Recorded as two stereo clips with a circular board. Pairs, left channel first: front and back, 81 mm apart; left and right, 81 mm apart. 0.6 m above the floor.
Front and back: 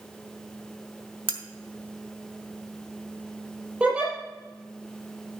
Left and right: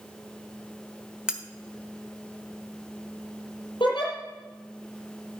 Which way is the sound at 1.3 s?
170° right.